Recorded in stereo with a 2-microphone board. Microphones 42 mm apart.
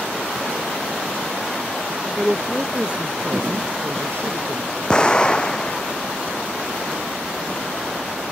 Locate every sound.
2.2 s a woman speaking: 5° right (ahead or behind); by 4.8 s 70° right (ahead or behind)
4.9 s an explosion: 20° left (ahead or behind)